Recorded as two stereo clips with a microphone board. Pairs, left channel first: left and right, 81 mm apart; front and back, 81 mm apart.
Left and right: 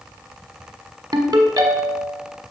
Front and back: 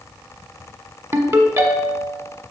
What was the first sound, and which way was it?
A ringtone, 130° right.